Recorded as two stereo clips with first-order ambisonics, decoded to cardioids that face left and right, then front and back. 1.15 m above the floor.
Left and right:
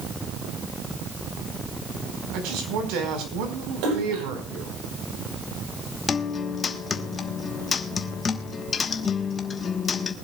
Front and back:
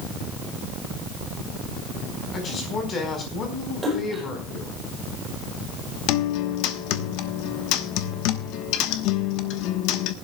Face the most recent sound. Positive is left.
turn(degrees=20)